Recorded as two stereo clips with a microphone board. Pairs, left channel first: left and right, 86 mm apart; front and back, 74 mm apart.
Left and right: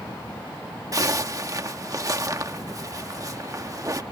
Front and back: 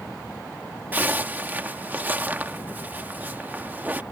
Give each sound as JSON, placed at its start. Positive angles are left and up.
{"t": 0.9, "sound": "a zipper", "azimuth_deg": -120}